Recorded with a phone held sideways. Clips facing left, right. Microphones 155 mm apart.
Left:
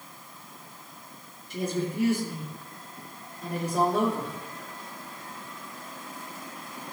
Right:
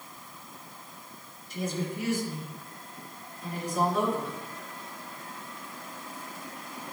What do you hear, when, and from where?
1.5 s a woman speaking: 60° left (ahead or behind), 2.5 m